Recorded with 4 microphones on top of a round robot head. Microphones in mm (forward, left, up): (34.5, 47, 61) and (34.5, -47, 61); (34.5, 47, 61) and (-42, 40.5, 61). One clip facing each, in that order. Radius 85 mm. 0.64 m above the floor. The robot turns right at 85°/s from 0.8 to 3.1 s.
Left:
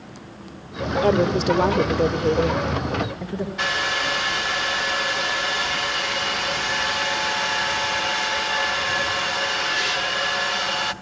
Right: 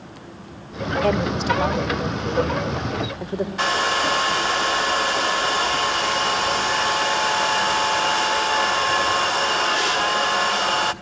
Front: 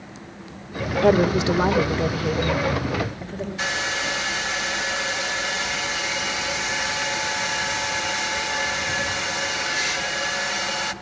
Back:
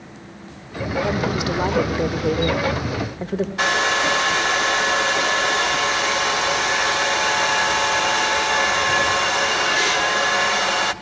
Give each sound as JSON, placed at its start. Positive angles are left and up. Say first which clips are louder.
{"t": 1.0, "sound": "a woman speaking", "louder": "left 3 dB, front 7 dB", "azimuth_deg": 30, "distance_m": 2.5}
{"t": 3.6, "sound": "a hair dryer", "louder": "right 5 dB, back 7 dB", "azimuth_deg": -140, "distance_m": 1.1}